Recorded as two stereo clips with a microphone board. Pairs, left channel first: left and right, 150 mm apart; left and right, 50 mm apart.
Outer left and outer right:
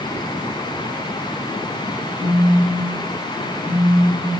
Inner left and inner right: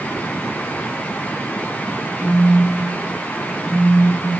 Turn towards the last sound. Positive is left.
turn(degrees=-25)  # may be behind; listen again after turning